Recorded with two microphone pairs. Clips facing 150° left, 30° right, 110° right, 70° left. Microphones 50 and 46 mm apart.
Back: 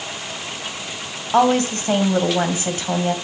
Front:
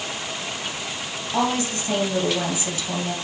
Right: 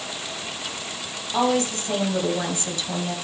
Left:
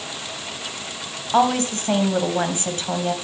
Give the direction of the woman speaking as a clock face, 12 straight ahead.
8 o'clock.